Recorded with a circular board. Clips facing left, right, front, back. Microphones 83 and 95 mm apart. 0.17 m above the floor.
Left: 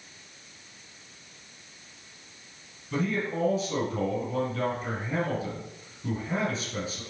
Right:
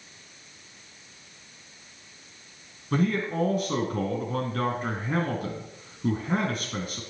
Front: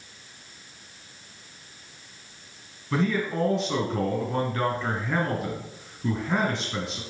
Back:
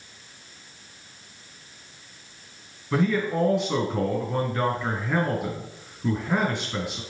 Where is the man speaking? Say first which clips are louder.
Right 3 dB, back 2 dB; 100° right, 2.5 m.